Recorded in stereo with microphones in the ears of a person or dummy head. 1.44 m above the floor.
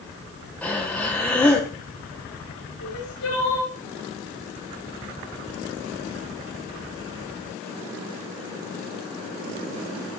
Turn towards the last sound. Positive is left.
turn(degrees=65)  # may be behind; listen again after turning